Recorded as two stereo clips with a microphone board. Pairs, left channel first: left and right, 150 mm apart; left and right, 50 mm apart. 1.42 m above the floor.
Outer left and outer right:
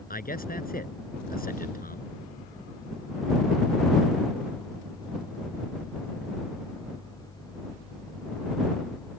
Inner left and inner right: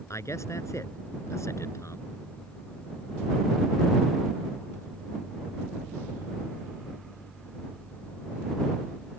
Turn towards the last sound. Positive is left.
turn(degrees=75)  # may be behind; listen again after turning